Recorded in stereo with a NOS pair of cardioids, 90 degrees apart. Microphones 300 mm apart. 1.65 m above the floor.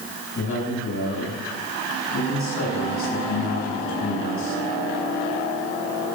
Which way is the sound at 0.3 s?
45° left.